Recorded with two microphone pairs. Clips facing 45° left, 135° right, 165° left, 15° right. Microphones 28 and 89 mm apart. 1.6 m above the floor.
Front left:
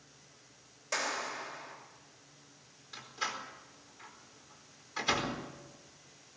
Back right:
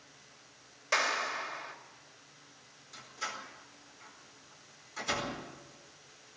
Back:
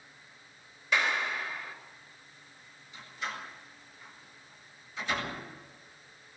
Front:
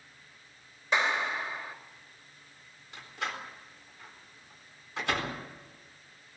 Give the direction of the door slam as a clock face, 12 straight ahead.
12 o'clock.